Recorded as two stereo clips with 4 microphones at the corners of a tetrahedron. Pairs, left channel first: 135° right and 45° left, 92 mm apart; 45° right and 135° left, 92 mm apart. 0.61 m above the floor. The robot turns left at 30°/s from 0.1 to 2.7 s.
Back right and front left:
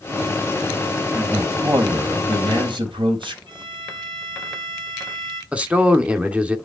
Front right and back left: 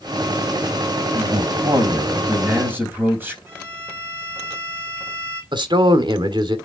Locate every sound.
1.1 s a man speaking: 115° left, 3.5 m; by 3.4 s 70° left, 3.5 m
3.5 s a violin: 75° left, 3 m
5.5 s a man speaking: 120° left, 1.4 m